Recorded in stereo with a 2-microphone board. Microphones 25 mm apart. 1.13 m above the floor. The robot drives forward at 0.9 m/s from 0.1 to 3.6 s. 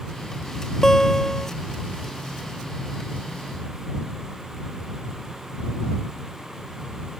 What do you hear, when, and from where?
0.8 s a guitar: 20° left (ahead or behind); by 1.5 s 15° left (ahead or behind)